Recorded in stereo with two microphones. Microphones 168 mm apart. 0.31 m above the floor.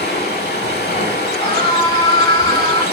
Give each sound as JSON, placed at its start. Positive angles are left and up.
{"t": 0.0, "sound": "running water", "side_deg": 75, "distance_m": 0.8}
{"t": 1.4, "sound": "a scream", "side_deg": 25, "distance_m": 1.4}